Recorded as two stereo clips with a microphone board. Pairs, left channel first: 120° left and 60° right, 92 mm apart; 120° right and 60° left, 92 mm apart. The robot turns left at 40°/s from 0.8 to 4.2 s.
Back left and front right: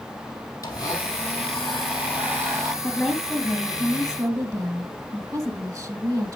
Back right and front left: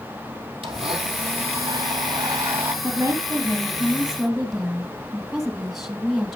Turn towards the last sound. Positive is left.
turn(degrees=-25)